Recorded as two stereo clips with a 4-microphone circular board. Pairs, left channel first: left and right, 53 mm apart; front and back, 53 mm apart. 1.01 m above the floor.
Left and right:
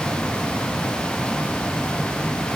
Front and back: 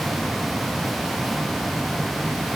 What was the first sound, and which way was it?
Only background noise.